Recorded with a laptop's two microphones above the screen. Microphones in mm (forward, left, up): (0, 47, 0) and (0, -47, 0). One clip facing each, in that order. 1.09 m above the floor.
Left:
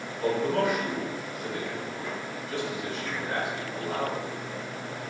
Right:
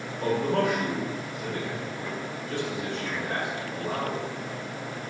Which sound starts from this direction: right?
A man speaking, at 0.2 s.